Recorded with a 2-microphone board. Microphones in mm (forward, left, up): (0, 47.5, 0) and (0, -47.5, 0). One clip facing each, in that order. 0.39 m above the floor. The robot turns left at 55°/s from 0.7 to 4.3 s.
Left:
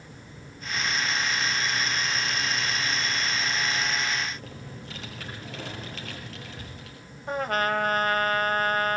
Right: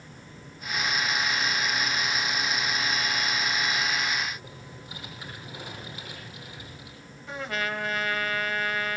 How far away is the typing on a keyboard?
About 6.5 m.